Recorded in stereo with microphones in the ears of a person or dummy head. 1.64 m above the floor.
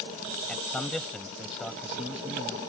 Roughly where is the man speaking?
Centre.